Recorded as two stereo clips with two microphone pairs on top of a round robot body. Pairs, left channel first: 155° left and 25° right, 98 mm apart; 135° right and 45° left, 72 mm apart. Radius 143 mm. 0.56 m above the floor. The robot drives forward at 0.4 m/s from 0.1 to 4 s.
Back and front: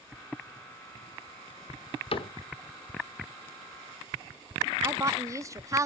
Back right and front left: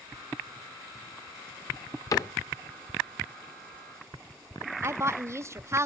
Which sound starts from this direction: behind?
A cupboard door, at 2.1 s.